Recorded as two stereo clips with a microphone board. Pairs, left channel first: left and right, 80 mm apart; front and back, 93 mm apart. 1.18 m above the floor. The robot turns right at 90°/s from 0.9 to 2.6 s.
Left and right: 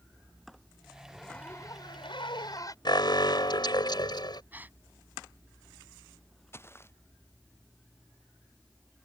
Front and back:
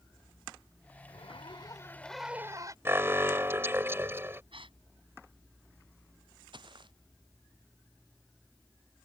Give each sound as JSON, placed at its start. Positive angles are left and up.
{"t": 1.1, "sound": "a zipper", "azimuth_deg": -10}
{"t": 2.9, "sound": "an alarm", "azimuth_deg": 115}
{"t": 4.5, "sound": "a gasp", "azimuth_deg": -160}
{"t": 6.5, "sound": "footsteps", "azimuth_deg": 150}